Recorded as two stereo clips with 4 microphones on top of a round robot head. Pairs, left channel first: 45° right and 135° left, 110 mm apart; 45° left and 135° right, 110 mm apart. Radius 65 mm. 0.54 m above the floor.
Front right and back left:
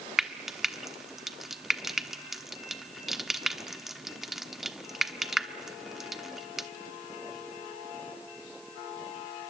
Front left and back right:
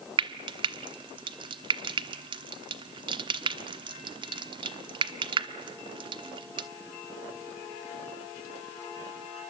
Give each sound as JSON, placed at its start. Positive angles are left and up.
{"t": 0.2, "sound": "frying", "azimuth_deg": -135, "distance_m": 1.2}